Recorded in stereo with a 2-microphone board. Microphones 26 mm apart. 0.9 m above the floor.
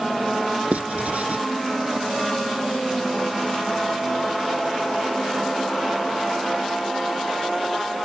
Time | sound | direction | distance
0.7 | writing | 70° right (ahead or behind) | ?